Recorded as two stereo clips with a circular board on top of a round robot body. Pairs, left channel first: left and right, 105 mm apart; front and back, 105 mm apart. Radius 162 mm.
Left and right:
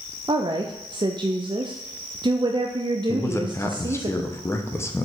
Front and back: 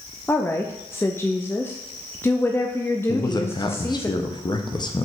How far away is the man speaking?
About 1.0 m.